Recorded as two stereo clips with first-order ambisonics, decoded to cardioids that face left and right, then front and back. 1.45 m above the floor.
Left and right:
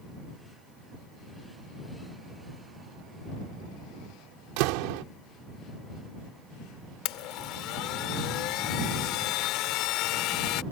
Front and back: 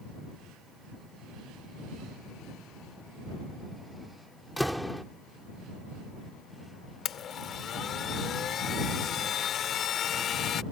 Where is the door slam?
90° right.